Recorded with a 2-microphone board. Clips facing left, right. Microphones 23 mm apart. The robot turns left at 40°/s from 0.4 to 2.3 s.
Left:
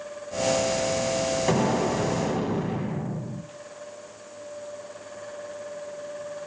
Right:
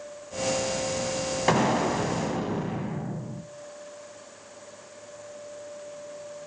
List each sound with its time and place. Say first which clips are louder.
1.5 s an explosion: right 3 dB; 150° right, 0.8 m; by 3.4 s 175° left, 0.8 m